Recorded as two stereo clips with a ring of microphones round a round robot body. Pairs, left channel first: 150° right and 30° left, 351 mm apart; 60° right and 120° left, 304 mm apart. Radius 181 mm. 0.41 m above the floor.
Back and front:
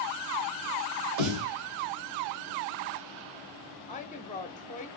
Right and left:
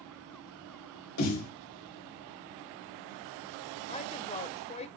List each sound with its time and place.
1.2 s a snare drum: 10° right, 2 m
3.9 s a woman speaking: 105° right, 0.8 m